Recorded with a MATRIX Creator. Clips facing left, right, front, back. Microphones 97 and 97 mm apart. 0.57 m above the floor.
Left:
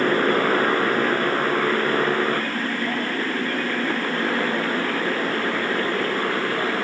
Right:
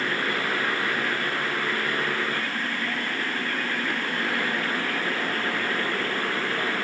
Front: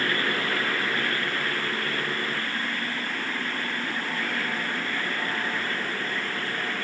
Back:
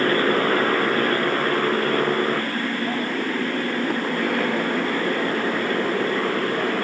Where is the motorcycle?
140° left; by 6.8 s 155° left.